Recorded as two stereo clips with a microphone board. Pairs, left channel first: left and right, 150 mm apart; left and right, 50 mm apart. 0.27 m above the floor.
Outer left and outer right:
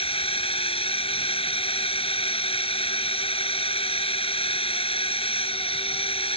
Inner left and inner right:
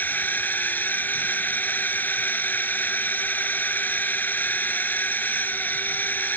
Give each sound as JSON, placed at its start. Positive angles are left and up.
{"t": 0.0, "sound": "a drone", "side_deg": 40}